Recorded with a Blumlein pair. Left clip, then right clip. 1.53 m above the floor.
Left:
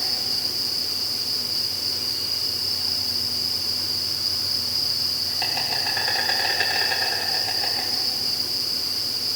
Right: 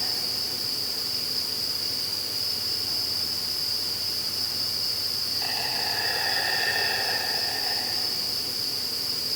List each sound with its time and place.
0.0 s an insect: 65° left, 7.5 m